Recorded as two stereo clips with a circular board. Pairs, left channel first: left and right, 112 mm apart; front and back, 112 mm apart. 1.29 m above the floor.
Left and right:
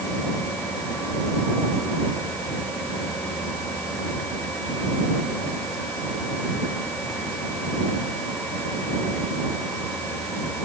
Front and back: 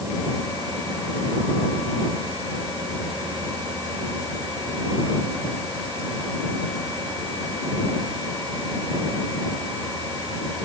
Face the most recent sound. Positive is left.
No sound to turn to.